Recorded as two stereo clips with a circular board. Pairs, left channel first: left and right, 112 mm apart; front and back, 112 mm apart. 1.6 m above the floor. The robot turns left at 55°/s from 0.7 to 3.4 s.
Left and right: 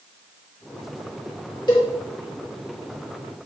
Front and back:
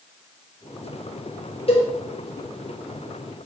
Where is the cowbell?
35° left, 5 m; by 1.9 s 25° left, 5 m.